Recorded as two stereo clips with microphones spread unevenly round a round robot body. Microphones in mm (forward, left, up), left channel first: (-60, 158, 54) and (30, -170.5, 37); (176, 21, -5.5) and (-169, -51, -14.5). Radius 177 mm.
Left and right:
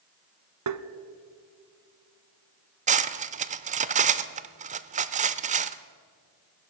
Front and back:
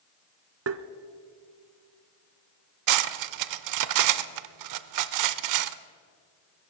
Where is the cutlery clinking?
140° right, 0.6 m.